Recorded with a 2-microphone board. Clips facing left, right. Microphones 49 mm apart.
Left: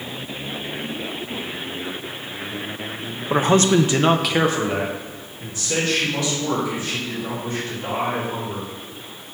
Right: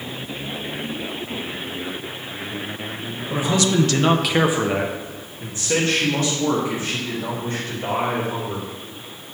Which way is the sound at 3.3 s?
50° left (ahead or behind).